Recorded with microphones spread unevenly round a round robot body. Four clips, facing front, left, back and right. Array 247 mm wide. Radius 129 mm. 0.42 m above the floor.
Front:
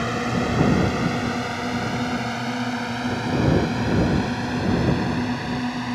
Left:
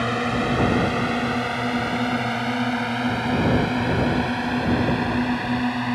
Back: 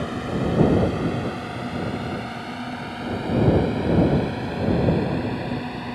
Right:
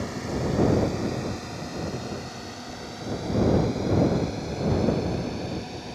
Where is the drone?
60° left; by 6.0 s 70° left.